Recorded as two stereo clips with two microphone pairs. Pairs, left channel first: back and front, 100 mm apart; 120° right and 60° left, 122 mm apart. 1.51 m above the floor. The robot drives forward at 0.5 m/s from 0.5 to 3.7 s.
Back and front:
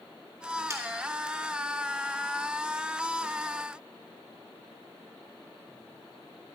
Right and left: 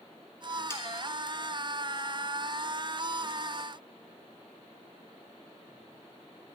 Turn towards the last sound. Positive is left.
turn(degrees=-140)